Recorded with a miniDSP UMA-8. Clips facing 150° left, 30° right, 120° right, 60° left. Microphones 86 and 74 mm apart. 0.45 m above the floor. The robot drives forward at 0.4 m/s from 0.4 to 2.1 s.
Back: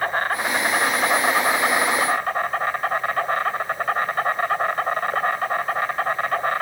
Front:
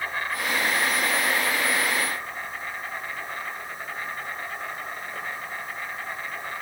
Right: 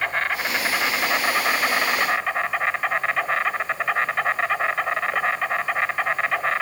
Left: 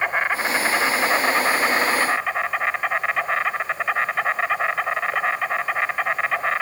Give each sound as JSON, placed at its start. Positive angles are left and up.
{"t": 0.0, "sound": "an insect", "azimuth_deg": 125, "distance_m": 1.5}